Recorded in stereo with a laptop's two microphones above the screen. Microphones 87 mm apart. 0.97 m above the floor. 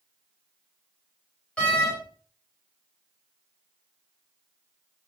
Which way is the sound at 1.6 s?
10° left (ahead or behind).